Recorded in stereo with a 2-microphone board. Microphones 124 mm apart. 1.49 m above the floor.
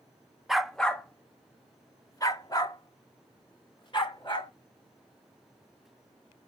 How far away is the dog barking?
About 0.9 m.